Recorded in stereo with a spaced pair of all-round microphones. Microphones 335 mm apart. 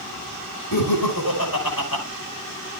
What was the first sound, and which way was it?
Laughter, 90° left.